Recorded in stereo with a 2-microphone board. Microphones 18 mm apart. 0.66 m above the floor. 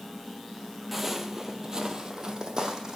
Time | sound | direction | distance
0.9 | footsteps | centre (ahead or behind) | 0.7 m